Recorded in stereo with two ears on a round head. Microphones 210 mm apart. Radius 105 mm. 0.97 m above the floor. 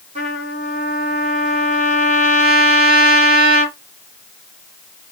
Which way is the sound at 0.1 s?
30° right (ahead or behind).